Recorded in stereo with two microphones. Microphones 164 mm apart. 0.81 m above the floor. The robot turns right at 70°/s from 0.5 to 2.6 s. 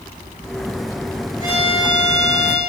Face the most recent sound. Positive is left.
turn(degrees=130)